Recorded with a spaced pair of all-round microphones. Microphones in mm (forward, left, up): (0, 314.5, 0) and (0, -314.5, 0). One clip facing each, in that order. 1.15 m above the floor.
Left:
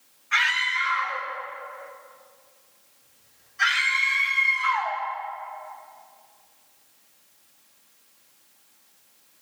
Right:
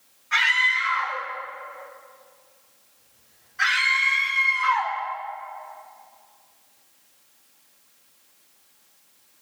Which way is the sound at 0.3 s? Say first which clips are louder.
Right 2 dB; 65° right (ahead or behind).